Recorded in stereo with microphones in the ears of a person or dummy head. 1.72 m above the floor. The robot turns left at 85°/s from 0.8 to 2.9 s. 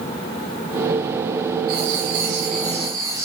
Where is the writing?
55° right, 4 m; by 3.2 s 160° right, 4 m.